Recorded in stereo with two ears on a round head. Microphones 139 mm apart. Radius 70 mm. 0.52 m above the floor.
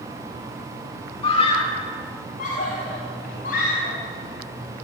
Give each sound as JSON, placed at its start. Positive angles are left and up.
{"t": 1.2, "sound": "a scream", "side_deg": 35, "distance_m": 1.7}